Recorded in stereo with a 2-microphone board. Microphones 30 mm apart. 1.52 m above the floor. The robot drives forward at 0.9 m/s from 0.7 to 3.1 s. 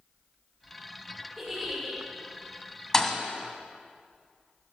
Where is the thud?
15° left (ahead or behind), 1.8 m.